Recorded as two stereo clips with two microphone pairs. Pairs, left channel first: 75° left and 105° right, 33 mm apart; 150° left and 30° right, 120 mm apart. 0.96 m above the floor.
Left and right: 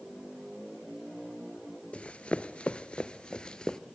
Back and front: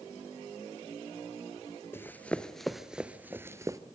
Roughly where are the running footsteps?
Left.